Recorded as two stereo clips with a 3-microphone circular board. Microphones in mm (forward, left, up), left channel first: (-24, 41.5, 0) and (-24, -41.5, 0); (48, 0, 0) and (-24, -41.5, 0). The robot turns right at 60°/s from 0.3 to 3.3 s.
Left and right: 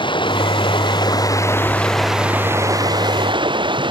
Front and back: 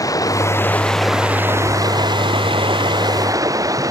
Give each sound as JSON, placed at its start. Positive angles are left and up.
{"t": 0.0, "sound": "running water", "azimuth_deg": 75}